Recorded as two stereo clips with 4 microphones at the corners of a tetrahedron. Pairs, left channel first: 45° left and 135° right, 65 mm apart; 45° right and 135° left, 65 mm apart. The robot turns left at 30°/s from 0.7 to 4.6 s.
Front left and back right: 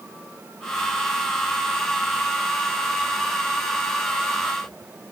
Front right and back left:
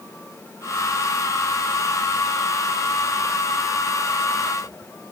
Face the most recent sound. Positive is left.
No sound to turn to.